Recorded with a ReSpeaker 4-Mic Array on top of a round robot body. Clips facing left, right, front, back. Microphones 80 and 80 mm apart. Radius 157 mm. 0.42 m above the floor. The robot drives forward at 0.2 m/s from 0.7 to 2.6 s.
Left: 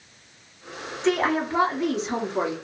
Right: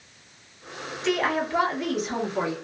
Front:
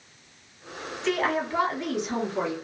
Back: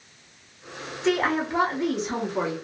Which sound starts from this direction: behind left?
A woman speaking, at 1.0 s.